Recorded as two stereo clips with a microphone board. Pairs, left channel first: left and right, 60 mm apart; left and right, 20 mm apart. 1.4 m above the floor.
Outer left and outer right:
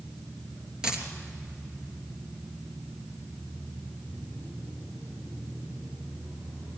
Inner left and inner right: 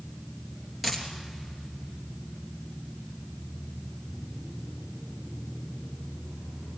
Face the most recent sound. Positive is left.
turn(degrees=-10)  # may be behind; listen again after turning